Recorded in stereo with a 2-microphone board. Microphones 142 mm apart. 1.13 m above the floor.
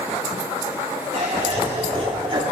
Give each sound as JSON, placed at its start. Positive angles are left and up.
{"t": 1.1, "sound": "laughter", "side_deg": -50, "distance_m": 2.5}